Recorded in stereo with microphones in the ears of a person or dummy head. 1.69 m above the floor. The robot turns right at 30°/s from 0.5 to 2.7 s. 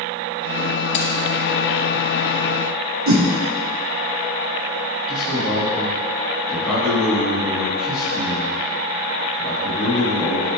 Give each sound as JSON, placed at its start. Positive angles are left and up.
{"t": 0.9, "sound": "keys jangling", "side_deg": 45, "distance_m": 1.1}
{"t": 3.1, "sound": "a whoosh", "side_deg": -75, "distance_m": 0.9}
{"t": 5.1, "sound": "a man speaking", "side_deg": -5, "distance_m": 2.0}